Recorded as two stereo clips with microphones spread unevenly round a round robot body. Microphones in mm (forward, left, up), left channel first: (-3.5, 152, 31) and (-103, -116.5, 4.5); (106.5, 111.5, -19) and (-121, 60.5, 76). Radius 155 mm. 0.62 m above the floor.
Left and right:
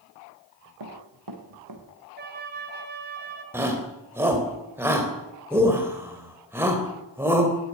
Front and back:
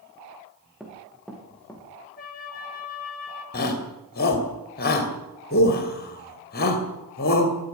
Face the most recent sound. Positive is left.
turn(degrees=-30)